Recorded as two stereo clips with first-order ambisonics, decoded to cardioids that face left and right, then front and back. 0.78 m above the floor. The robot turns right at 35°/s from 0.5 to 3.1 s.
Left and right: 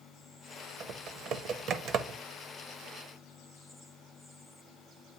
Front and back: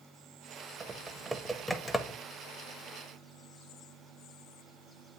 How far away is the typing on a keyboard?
About 0.6 m.